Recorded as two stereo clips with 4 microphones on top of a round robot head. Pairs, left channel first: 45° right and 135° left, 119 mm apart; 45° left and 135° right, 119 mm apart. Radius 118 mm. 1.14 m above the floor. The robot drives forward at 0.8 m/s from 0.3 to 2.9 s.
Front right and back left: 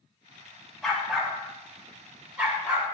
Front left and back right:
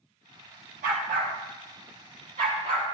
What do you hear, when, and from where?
0.8 s a dog barking: 130° right, 2.5 m; by 2.8 s 150° right, 4 m